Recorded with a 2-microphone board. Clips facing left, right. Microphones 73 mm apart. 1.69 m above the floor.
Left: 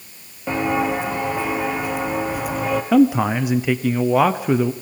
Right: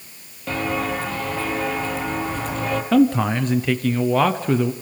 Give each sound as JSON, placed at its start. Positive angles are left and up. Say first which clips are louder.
{"t": 0.5, "sound": "footsteps", "louder": "left 4 dB", "side_deg": 20, "distance_m": 1.8}
{"t": 2.9, "sound": "a man speaking", "louder": "left 1 dB", "side_deg": 10, "distance_m": 0.8}